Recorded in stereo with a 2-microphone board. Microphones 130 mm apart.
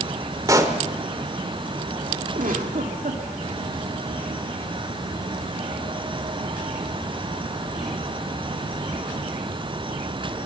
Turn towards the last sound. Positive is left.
turn(degrees=-85)